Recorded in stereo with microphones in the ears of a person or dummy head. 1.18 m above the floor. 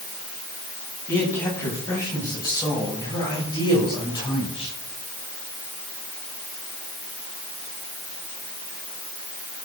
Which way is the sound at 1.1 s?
15° left (ahead or behind).